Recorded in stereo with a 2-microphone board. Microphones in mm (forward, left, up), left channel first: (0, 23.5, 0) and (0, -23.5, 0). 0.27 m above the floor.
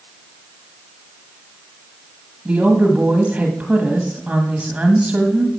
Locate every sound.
2.5 s a woman speaking: 30° right (ahead or behind), 1.4 m